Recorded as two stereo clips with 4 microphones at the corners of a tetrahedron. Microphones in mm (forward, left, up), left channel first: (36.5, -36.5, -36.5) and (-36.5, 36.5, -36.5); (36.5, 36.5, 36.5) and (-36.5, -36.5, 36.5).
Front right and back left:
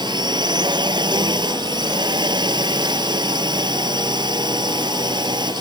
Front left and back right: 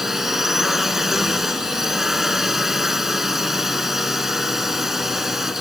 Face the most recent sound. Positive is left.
turn(degrees=140)